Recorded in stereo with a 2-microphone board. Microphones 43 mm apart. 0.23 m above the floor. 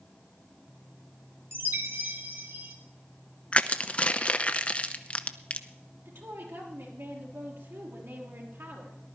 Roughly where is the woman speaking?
Right.